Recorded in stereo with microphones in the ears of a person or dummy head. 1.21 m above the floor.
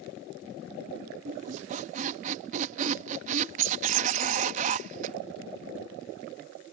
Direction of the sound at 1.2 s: 40° right (ahead or behind).